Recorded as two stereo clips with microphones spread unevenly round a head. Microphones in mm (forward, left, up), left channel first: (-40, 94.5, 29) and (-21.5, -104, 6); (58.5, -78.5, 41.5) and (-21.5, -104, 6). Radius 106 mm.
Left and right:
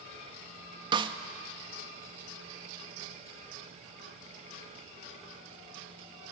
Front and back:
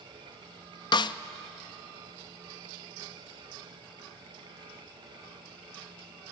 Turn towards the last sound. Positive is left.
turn(degrees=-15)